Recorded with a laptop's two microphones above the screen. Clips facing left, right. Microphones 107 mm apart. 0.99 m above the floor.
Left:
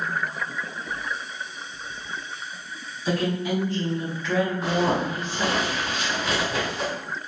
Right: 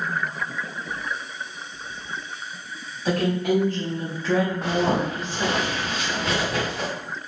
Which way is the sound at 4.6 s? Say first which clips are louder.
Right 1 dB; 60° right (ahead or behind).